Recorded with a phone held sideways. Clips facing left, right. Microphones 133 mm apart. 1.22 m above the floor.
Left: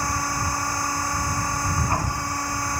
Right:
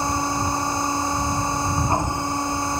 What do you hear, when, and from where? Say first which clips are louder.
0.0 s a machine running: right 4 dB; 20° right (ahead or behind)